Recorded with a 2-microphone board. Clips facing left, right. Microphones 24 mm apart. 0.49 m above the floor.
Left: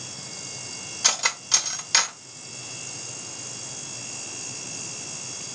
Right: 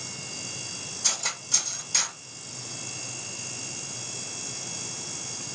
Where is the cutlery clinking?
45° left (ahead or behind), 0.8 m.